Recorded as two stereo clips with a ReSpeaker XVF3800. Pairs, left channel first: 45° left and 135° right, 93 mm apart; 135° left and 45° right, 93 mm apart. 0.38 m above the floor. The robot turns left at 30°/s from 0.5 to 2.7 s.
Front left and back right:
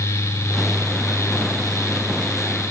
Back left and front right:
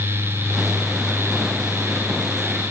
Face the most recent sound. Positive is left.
No sound to turn to.